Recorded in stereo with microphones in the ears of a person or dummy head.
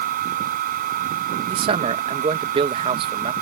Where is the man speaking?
25° right (ahead or behind).